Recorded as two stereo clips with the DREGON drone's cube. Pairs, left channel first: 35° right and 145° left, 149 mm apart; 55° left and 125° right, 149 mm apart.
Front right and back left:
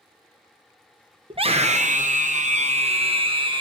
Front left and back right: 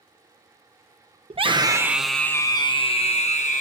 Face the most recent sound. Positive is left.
turn(degrees=90)